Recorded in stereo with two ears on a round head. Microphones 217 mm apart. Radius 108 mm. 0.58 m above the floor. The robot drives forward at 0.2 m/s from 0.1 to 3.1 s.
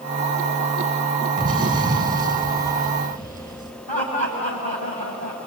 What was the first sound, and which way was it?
An explosion, 20° right (ahead or behind).